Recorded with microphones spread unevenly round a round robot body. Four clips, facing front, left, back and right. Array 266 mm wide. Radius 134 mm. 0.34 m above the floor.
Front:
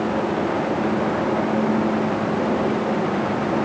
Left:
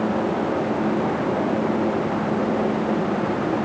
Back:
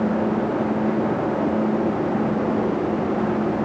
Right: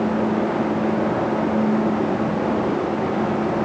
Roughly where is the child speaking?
I don't hear a child speaking.